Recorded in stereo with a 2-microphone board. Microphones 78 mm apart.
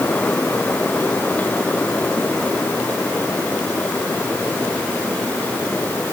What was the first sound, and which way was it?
Only background noise.